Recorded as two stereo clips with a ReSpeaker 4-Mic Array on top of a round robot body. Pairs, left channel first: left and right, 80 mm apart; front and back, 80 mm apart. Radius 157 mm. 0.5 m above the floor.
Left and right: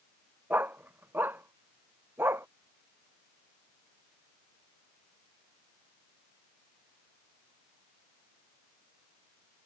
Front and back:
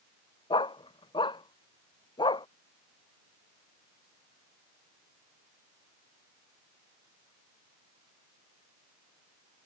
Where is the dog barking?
20° right; by 2.5 s 25° right.